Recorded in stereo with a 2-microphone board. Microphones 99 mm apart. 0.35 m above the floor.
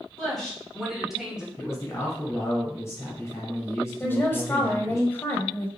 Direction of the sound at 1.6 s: 30° left (ahead or behind).